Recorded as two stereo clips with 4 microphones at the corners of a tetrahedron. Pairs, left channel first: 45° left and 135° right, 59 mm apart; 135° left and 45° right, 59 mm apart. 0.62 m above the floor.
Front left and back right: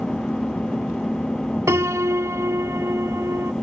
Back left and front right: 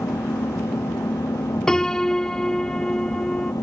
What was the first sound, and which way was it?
An engine running, 125° left.